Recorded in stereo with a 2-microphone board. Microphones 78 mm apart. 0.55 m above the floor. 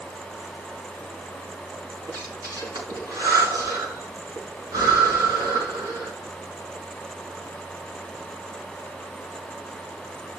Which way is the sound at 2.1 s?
55° right (ahead or behind).